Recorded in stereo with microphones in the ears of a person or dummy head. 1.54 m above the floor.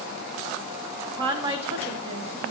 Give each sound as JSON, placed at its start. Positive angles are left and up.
{"t": 1.1, "sound": "a woman speaking", "side_deg": -35, "distance_m": 0.9}